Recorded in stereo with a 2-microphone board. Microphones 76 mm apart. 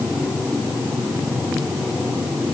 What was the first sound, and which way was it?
Only background noise.